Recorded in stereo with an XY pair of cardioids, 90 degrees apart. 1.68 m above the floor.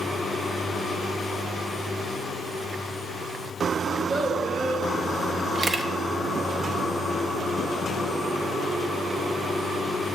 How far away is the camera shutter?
About 0.6 m.